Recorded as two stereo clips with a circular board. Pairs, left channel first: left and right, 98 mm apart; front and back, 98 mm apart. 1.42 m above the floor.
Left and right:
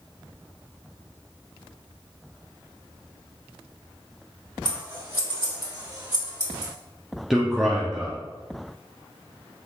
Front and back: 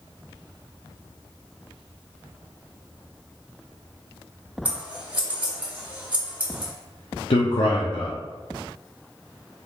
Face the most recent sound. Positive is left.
turn(degrees=-5)